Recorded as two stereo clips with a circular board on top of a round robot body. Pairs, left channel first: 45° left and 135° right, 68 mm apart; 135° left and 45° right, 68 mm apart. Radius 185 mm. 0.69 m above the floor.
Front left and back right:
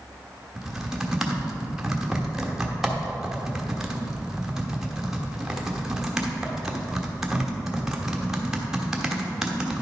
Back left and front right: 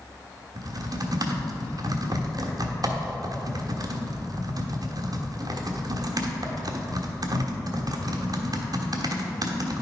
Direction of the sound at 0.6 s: 50° right.